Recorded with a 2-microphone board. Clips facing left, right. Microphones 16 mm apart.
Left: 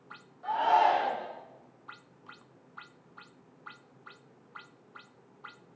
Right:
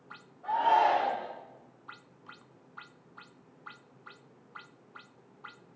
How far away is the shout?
About 3.5 m.